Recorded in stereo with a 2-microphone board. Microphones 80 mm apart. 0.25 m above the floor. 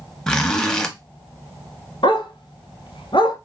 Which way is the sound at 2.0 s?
75° left (ahead or behind).